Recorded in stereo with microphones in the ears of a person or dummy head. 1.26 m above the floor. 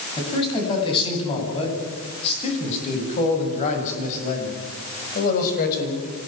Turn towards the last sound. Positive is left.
turn(degrees=55)  # may be behind; listen again after turning